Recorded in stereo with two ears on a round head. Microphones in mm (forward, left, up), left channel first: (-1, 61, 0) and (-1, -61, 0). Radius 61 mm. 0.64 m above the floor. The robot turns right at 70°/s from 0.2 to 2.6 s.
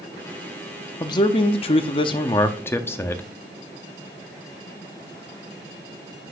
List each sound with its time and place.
1.0 s a man speaking: 40° left, 0.7 m; by 3.2 s 155° left, 0.7 m